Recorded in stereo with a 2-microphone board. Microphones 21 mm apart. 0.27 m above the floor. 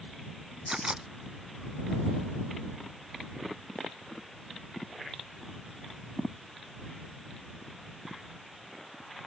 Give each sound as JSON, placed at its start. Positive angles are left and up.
{"t": 0.7, "sound": "a camera shutter", "side_deg": -35}